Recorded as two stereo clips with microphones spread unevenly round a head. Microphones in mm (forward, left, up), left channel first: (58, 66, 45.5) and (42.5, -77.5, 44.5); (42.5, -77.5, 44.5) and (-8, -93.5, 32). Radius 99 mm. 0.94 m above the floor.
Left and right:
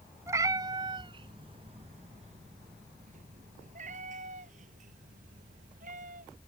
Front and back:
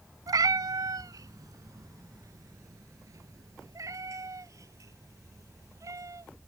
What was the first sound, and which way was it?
A cat meowing, 175° right.